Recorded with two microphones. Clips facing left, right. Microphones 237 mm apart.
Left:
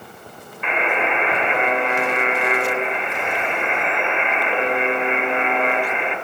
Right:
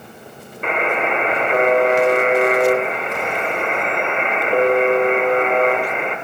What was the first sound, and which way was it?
A buzzer, 45° right (ahead or behind).